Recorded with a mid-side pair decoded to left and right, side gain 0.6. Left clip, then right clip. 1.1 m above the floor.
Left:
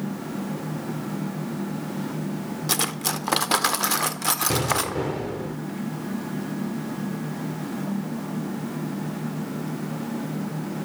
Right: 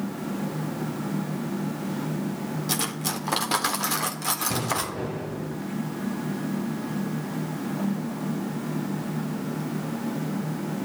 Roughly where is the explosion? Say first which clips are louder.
Left 4 dB; ahead left.